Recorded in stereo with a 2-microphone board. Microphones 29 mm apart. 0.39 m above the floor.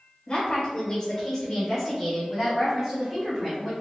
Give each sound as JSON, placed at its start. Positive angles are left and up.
{"t": 0.3, "sound": "a woman speaking", "side_deg": 35, "distance_m": 1.5}